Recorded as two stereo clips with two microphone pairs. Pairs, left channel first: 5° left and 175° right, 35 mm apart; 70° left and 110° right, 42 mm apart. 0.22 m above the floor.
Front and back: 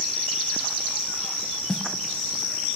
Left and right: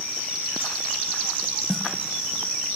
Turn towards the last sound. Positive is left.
turn(degrees=0)